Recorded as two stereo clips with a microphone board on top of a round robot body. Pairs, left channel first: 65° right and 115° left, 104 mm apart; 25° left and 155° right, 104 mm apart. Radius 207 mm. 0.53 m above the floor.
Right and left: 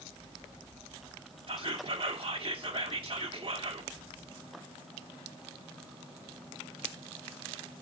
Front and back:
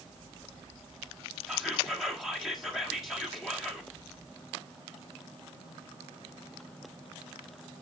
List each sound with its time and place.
1.5 s whispering: 120° left, 1.3 m